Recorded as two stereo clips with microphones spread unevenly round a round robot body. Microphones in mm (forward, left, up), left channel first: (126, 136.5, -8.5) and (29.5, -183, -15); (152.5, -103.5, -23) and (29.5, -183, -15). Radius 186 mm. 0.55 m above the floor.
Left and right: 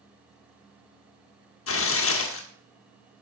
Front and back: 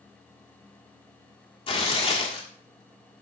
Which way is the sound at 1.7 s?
50° left.